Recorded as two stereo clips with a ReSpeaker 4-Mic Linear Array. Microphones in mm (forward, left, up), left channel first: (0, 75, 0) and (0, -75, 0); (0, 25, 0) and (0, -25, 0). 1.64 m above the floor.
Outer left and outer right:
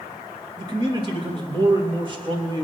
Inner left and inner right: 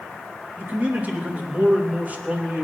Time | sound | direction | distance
0.6 | a man speaking | 30° right (ahead or behind) | 2.5 m